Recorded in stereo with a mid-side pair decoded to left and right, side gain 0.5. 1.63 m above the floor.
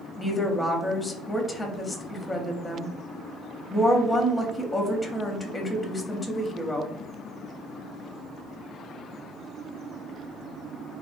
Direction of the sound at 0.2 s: 15° left.